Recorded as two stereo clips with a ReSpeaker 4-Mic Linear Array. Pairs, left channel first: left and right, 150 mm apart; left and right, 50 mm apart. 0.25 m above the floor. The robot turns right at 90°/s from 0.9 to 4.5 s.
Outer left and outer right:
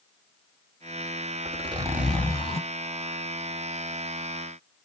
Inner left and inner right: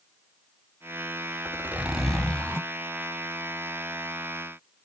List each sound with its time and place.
1.4 s a zipper: 60° right, 1.4 m; by 2.7 s 50° left, 1.4 m